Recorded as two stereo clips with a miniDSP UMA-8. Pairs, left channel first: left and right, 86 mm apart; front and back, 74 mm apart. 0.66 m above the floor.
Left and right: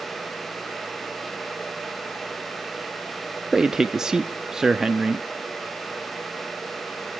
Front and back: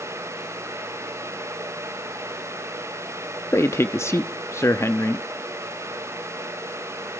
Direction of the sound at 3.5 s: 10° right.